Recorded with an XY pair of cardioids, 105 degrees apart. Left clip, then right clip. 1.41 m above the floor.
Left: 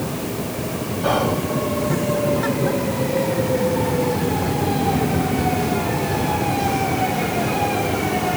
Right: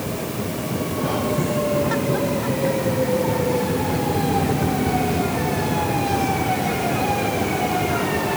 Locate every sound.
1.0 s whispering: 50° left, 0.6 m